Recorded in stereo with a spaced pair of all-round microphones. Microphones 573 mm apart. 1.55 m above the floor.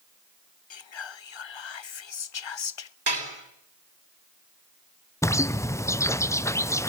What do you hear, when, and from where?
0.7 s whispering: 55° left (ahead or behind), 0.5 m
3.1 s dishes clattering: 40° right (ahead or behind), 3.5 m
5.2 s a bird: 5° left (ahead or behind), 0.5 m